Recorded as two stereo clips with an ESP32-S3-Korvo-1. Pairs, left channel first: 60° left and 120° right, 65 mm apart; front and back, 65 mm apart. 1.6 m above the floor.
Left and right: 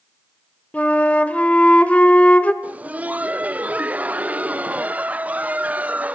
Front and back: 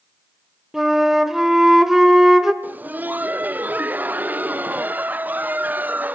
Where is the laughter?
160° right, 0.5 m.